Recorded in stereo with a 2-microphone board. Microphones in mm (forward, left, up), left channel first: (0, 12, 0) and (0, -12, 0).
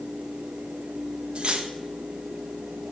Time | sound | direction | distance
1.4 | cutlery clinking | 45° right (ahead or behind) | 0.7 m